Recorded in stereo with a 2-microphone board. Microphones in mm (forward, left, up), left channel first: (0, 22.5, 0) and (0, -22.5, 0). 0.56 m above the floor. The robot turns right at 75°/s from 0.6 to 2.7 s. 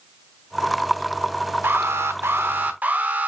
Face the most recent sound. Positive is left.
turn(degrees=-45)